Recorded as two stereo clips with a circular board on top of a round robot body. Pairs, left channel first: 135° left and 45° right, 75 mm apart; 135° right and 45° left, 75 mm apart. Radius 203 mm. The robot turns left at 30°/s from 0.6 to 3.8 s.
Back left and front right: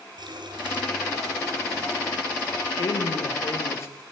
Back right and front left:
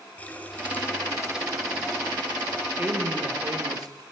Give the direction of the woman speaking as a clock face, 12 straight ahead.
8 o'clock.